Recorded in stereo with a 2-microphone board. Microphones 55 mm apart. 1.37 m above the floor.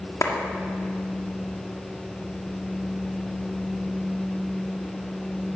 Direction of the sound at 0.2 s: 75° left (ahead or behind).